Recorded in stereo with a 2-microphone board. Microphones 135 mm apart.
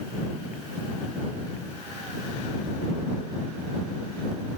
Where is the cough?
No cough in this recording.